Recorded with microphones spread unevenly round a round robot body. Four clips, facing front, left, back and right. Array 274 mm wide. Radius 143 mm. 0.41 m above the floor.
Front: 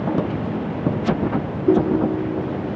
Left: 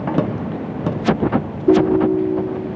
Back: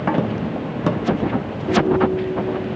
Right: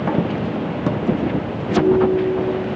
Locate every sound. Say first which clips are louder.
1.7 s a ringtone: left 2 dB, even; 65° left, 6 m